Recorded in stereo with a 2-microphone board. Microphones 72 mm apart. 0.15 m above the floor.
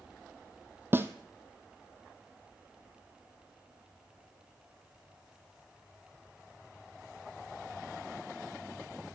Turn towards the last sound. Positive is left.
turn(degrees=-30)  # may be behind; listen again after turning